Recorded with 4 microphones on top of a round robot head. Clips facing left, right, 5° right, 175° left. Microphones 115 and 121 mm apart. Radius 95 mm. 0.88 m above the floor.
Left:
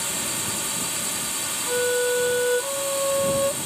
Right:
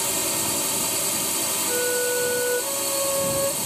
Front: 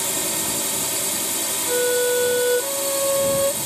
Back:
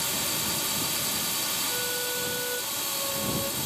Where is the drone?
40° right.